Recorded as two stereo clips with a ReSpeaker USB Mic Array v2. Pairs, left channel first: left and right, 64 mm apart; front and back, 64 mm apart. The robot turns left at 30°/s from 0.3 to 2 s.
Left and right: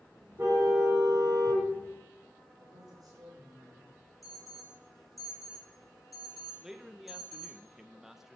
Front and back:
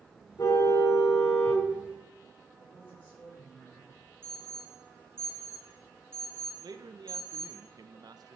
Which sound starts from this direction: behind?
A man speaking, at 6.6 s.